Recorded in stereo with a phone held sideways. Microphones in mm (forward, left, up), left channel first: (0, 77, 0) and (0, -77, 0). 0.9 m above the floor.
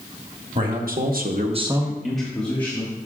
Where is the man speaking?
60° right (ahead or behind), 1.6 m; by 2.9 s 20° left (ahead or behind), 2.5 m.